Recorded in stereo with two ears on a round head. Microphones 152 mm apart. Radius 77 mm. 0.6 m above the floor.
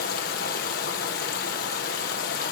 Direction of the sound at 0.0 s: 55° left (ahead or behind).